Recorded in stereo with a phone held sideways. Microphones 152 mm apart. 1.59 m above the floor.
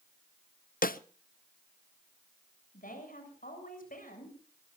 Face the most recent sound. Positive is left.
turn(degrees=65)  # may be behind; listen again after turning